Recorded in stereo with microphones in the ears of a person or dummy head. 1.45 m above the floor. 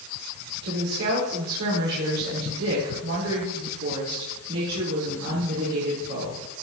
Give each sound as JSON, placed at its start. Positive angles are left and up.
{"t": 0.6, "sound": "a woman speaking", "side_deg": -85, "distance_m": 4.5}